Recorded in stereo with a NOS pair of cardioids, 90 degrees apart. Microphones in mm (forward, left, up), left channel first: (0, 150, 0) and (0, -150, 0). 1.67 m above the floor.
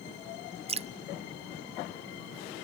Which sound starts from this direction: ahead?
Dripping, at 0.7 s.